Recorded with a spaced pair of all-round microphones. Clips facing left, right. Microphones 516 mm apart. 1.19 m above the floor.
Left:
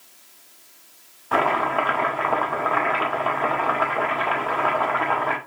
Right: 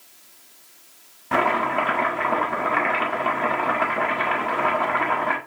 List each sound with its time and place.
1.3 s chopping: 45° right (ahead or behind), 1.9 m